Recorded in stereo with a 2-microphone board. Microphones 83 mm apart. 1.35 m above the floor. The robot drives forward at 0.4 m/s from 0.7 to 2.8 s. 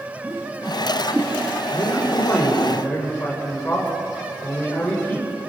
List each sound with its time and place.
0.2 s a whoosh: 20° right (ahead or behind), 3.5 m
1.7 s a man speaking: 20° left (ahead or behind), 6 m